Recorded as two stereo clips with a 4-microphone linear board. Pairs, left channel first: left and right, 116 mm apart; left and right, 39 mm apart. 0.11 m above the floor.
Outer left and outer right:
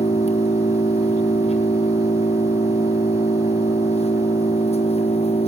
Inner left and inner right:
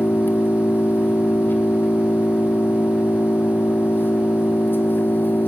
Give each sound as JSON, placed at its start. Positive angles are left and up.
{"t": 0.0, "sound": "an engine running", "side_deg": 75, "distance_m": 1.3}